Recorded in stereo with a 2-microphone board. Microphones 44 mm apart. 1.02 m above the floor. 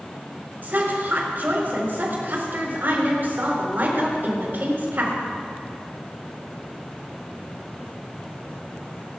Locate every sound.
0.6 s a woman speaking: 55° right (ahead or behind), 4 m